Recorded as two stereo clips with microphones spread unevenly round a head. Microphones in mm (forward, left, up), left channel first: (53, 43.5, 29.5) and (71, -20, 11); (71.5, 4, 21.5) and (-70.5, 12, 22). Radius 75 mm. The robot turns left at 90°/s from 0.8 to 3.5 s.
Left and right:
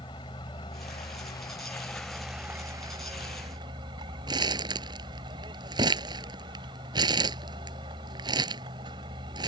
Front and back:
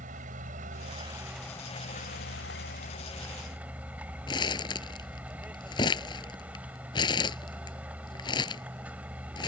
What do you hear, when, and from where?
0.0 s a vehicle: 140° left; by 9.5 s 100° right
4.3 s crumpling: 65° right